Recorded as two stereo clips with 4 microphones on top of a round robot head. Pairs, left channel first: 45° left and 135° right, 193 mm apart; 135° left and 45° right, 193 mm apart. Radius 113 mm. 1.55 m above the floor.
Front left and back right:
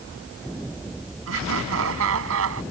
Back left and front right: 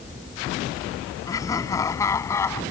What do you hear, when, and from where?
1.3 s laughter: 150° right; by 2.6 s 145° right